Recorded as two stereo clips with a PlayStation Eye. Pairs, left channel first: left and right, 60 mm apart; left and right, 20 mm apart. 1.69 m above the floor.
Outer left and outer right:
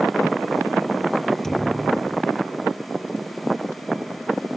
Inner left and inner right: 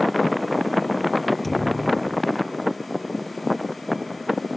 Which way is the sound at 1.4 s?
5° left (ahead or behind).